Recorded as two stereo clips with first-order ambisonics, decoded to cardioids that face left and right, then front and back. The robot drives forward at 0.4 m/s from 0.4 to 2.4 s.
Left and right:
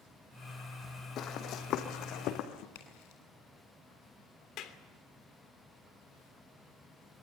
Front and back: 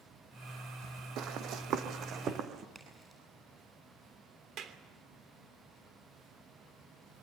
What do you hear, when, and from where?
1.2 s running footsteps: 140° left, 2.5 m; by 2.6 s 120° left, 4 m
2.8 s a crack: 100° left, 9 m
4.6 s a clap: 130° left, 3 m